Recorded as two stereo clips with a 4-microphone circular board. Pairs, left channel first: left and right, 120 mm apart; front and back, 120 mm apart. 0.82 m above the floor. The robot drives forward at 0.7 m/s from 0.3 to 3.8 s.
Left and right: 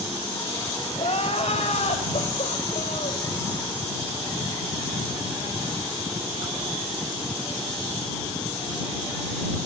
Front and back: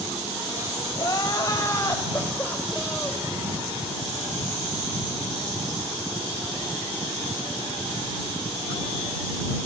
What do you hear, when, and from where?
1.0 s crying: 60° left, 4 m; by 3.3 s 85° left, 3 m